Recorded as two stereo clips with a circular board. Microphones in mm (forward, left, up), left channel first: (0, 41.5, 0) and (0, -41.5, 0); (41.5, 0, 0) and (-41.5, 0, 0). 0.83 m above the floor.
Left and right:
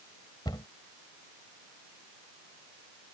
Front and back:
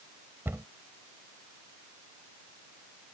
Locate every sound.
0.5 s a cupboard door: 120° left